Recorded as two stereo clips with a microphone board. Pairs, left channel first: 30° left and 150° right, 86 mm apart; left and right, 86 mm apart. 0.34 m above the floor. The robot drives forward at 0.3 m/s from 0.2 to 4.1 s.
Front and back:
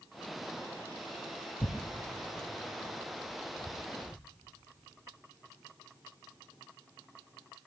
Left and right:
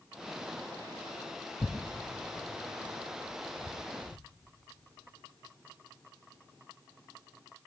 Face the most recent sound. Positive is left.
turn(degrees=105)